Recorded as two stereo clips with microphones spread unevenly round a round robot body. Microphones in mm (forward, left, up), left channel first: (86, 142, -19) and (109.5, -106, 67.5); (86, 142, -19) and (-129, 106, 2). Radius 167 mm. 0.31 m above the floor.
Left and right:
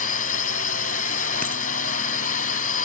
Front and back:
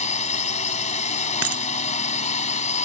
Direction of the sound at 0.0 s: 60° left.